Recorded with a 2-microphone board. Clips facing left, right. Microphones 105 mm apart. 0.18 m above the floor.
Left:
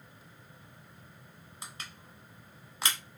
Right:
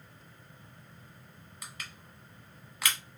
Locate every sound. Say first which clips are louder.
1.6 s crushing: even; 30° left (ahead or behind), 0.7 m